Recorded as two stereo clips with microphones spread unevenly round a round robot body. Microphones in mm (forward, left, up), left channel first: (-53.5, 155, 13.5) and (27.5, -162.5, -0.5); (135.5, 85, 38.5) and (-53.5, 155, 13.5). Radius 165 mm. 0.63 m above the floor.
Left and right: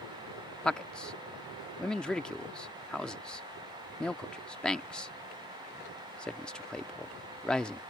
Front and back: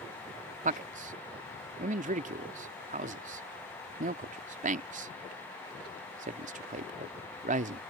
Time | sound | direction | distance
0.6 | a man speaking | 165° right | ?